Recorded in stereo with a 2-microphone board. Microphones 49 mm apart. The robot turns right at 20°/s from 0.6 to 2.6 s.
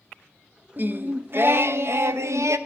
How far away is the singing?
About 0.6 m.